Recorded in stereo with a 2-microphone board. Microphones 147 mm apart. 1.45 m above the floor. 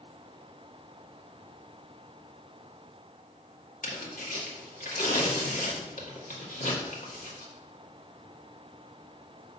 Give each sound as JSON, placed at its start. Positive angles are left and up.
{"t": 3.8, "sound": "tearing paper", "side_deg": 65, "distance_m": 2.0}